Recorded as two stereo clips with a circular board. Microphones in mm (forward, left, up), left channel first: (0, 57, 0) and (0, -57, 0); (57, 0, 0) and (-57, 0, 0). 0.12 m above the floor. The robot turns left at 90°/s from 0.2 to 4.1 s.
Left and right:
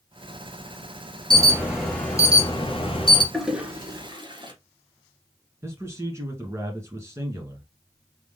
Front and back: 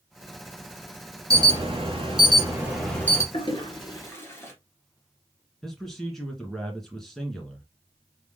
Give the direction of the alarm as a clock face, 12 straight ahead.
4 o'clock.